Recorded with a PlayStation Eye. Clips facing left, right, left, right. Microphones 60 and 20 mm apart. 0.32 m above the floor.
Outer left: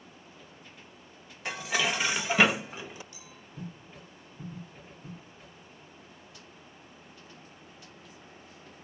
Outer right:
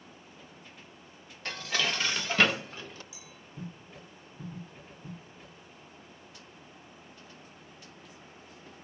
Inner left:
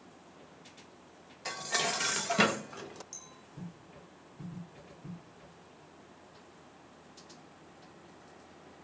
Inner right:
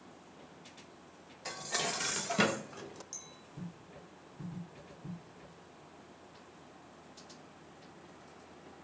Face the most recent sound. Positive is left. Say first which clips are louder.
# outer left 1 dB, inner right 1 dB
turn(degrees=-10)  # may be behind; listen again after turning